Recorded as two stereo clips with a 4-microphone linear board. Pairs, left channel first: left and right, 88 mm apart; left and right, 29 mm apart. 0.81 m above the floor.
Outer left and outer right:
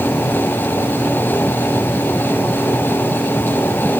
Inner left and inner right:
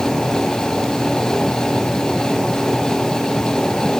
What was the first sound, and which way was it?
Only background noise.